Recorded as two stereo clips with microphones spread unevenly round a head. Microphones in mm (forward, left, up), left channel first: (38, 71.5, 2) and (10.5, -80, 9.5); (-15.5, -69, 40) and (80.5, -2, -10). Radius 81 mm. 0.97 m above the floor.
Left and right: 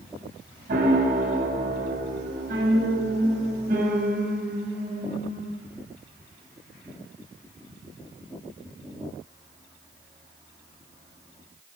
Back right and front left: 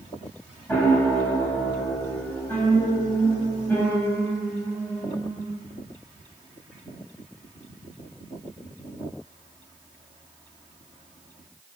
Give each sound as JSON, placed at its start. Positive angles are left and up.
{"t": 0.7, "sound": "a piano", "azimuth_deg": -75, "distance_m": 6.0}